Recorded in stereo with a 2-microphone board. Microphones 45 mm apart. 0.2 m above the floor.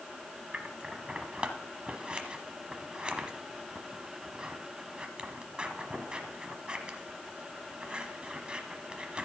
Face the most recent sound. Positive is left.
turn(degrees=-25)  # may be behind; listen again after turning